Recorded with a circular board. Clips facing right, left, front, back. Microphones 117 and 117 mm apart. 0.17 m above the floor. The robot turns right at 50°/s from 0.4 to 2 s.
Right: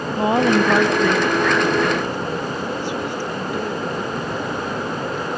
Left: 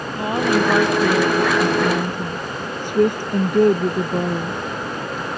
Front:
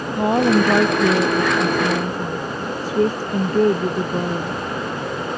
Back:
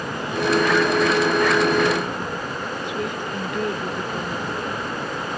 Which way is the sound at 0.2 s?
25° right.